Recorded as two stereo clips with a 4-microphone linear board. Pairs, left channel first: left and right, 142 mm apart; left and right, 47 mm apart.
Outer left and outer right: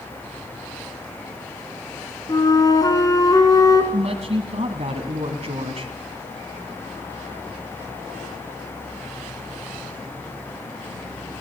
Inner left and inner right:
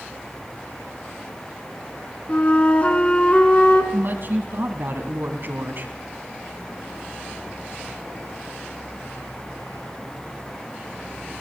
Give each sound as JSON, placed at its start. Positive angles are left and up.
{"t": 2.3, "sound": "a flute", "side_deg": 25, "distance_m": 3.0}
{"t": 3.9, "sound": "a woman speaking", "side_deg": -50, "distance_m": 2.5}